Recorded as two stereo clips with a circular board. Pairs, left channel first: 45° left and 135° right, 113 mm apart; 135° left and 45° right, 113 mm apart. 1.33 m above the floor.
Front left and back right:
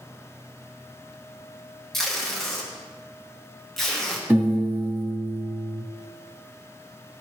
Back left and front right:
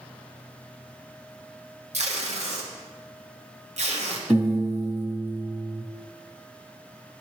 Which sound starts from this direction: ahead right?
Tape being pulled, at 1.9 s.